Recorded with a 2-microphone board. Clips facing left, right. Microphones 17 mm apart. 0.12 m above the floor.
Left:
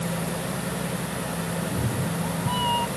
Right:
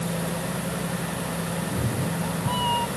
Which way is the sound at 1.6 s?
5° right (ahead or behind).